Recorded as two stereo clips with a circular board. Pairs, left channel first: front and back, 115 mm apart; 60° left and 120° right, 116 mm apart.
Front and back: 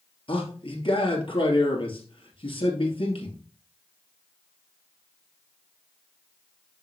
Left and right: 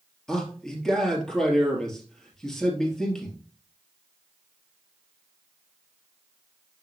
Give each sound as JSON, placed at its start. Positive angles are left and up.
{"t": 0.3, "sound": "a man speaking", "azimuth_deg": -25, "distance_m": 2.5}